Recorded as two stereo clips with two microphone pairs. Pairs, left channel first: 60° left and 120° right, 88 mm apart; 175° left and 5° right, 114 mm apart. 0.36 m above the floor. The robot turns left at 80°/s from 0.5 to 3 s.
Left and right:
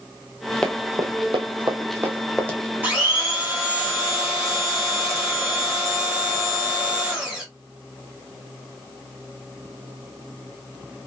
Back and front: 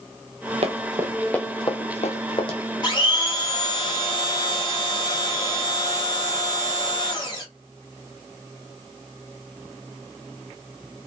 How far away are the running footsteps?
About 0.7 m.